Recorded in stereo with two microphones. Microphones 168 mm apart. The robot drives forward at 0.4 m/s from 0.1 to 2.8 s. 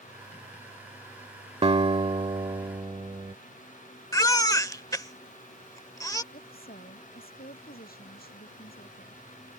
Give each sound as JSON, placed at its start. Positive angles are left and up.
{"t": 1.6, "sound": "a guitar", "side_deg": -35}
{"t": 4.1, "sound": "a baby crying", "side_deg": 20}
{"t": 6.3, "sound": "a woman speaking", "side_deg": 65}